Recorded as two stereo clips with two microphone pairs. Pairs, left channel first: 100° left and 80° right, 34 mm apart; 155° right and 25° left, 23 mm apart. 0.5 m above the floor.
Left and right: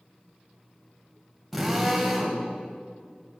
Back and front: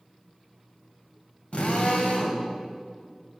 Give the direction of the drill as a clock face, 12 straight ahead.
6 o'clock.